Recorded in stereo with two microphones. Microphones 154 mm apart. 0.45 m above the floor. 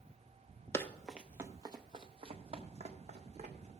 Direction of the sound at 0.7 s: 20° left (ahead or behind).